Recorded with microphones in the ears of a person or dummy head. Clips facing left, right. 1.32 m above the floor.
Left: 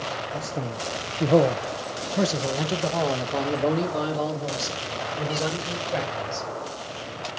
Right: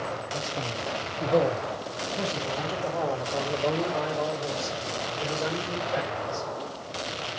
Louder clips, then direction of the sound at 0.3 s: Left 2 dB; 20° left (ahead or behind).